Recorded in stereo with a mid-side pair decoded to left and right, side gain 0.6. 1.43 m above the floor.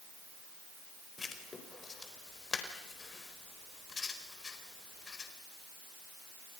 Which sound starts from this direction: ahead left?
Writing, at 1.2 s.